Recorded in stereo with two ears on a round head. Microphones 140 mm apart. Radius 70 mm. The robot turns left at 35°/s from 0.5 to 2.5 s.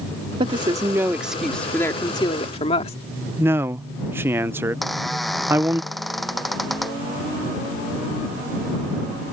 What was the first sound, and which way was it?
A woman speaking, 150° right.